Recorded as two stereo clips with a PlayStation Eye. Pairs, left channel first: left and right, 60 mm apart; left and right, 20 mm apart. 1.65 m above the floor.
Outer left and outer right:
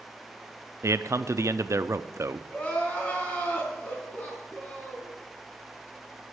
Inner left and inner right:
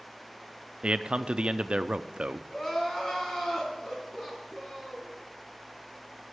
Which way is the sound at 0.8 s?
55° right (ahead or behind).